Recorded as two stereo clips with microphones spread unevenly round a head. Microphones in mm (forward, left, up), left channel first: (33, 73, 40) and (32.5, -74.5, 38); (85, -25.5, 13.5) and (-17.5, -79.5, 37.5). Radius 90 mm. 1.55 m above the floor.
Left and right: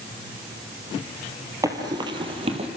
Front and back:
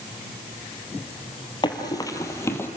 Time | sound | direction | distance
1.6 | running footsteps | 25° right | 2.5 m